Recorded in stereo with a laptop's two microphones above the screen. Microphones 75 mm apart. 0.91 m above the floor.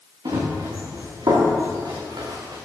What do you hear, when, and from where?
0.2 s running footsteps: 70° right (ahead or behind), 5 m